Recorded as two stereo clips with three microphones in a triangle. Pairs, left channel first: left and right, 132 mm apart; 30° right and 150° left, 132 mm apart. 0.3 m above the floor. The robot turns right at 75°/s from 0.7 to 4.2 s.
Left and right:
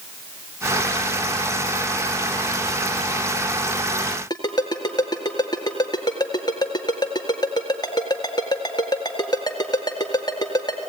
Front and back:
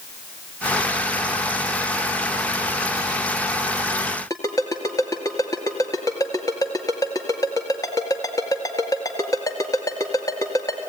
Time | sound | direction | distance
4.3 | a ringtone | 30° left | 1.9 m